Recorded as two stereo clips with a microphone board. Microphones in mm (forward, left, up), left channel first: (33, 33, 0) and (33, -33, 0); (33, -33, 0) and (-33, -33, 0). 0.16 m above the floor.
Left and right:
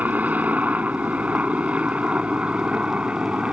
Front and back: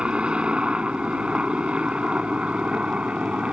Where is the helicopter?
125° right; by 3.5 s 140° right.